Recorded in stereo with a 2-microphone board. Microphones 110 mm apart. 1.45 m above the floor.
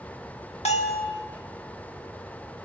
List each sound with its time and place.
0.7 s a bell: 80° left, 1.7 m